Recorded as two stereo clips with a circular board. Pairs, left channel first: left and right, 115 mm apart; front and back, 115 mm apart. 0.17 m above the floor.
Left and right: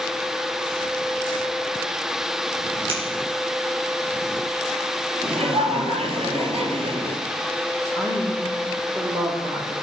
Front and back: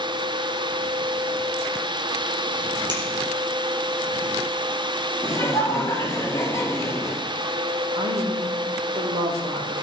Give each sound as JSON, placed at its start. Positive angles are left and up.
{"t": 2.9, "sound": "scissors", "azimuth_deg": -130, "distance_m": 4.0}
{"t": 5.2, "sound": "laughter", "azimuth_deg": -60, "distance_m": 2.5}
{"t": 8.0, "sound": "a woman speaking", "azimuth_deg": -150, "distance_m": 6.5}